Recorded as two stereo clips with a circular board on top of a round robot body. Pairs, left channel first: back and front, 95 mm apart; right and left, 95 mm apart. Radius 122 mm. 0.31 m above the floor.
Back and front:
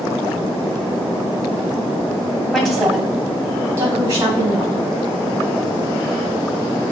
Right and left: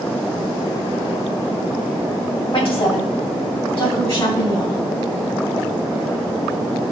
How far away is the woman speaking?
About 2.5 m.